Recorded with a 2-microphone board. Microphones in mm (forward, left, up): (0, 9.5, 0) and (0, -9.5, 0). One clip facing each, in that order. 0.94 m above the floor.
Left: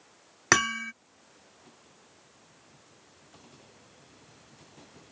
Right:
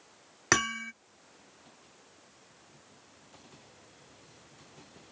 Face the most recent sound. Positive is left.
turn(degrees=10)  # may be behind; listen again after turning